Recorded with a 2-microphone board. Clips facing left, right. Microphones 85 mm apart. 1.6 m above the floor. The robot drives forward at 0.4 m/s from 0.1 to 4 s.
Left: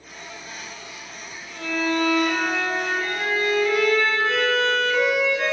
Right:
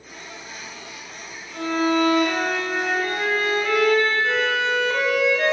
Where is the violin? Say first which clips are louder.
Right 3 dB; 50° right (ahead or behind), 2.5 m; by 5.5 s 60° right (ahead or behind), 2.5 m.